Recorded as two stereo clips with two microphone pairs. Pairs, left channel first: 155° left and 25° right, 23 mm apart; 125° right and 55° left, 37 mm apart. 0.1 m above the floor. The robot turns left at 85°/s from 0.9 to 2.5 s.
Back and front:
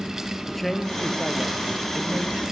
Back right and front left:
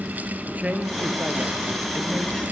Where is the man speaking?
70° left, 2.5 m; by 2.4 s 55° right, 2.5 m.